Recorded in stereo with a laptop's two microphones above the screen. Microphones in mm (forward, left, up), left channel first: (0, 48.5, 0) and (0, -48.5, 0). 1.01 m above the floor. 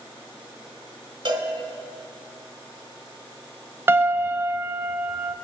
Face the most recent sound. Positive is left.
turn(degrees=-25)  # may be behind; listen again after turning